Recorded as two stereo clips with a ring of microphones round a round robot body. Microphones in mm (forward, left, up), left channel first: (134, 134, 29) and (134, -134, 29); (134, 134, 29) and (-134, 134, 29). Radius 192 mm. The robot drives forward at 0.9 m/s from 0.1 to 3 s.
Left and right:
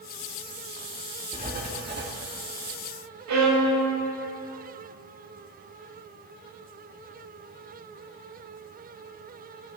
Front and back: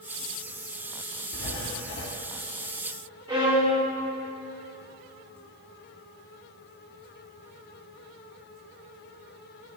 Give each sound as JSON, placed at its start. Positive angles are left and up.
{"t": 1.3, "sound": "writing", "azimuth_deg": -35, "distance_m": 1.9}
{"t": 3.3, "sound": "a violin", "azimuth_deg": -105, "distance_m": 1.9}